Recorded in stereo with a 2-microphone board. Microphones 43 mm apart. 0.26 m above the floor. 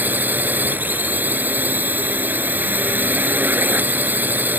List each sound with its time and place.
0.0 s a drone: 50° right (ahead or behind)